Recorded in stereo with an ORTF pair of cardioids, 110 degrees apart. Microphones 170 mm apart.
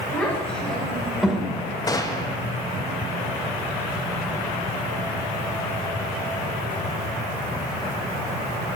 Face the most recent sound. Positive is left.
turn(degrees=20)